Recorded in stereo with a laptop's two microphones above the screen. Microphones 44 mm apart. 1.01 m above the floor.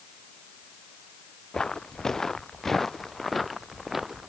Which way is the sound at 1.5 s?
15° left (ahead or behind).